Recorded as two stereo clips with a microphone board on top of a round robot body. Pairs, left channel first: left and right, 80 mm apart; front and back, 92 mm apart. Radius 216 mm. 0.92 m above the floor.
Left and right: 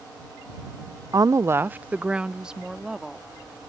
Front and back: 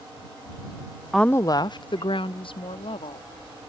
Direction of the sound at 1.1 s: 90° right.